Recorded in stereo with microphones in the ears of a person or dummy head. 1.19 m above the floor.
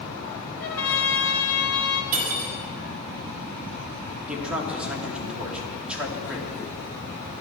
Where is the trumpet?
80° left, 3 m.